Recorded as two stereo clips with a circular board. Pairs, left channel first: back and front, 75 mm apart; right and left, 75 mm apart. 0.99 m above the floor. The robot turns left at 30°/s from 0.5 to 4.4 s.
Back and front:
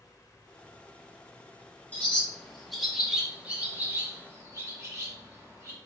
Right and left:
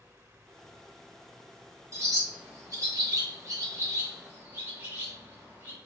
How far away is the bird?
About 1.2 m.